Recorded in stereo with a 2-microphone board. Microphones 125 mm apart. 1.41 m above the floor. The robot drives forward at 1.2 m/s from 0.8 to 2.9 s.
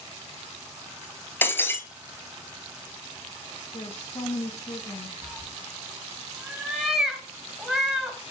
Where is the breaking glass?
15° left (ahead or behind), 1.4 m.